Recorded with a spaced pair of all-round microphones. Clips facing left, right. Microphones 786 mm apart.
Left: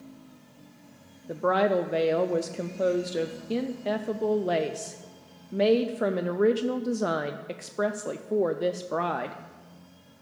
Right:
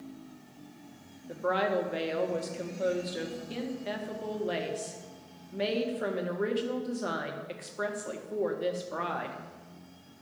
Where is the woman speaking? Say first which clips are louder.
Left 5 dB; 70° left (ahead or behind), 0.6 m.